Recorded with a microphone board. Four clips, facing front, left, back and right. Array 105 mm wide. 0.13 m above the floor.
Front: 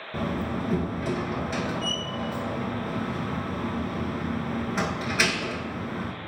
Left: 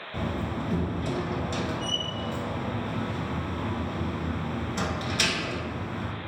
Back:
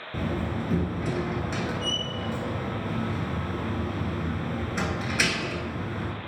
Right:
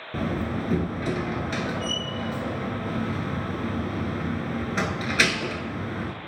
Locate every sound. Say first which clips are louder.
0.1 s a door slam: right 3 dB, front 1 dB; 85° right, 1.3 m